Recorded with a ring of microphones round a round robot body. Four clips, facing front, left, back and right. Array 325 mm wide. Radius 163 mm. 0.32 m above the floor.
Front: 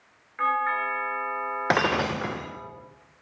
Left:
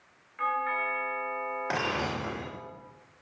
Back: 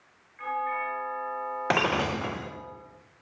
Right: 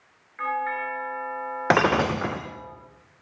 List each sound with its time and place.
0.4 s a doorbell: 10° right, 8 m
1.7 s breaking glass: 80° right, 4 m